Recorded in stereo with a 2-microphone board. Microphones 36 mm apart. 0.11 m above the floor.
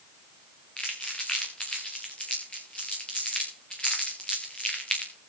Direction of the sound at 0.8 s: 30° left (ahead or behind).